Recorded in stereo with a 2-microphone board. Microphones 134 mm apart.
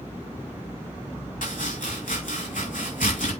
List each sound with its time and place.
1.4 s chopping: 80° left, 4.5 m